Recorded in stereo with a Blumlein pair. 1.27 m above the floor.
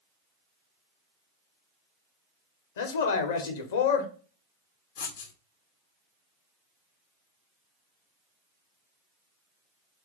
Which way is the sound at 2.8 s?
60° left.